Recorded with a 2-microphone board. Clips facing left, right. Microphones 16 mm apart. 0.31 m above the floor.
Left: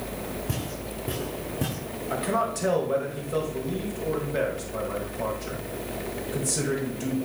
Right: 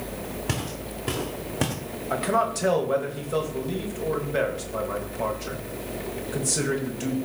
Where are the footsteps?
85° right, 1.9 m; by 1.8 s 70° right (ahead or behind), 1.6 m.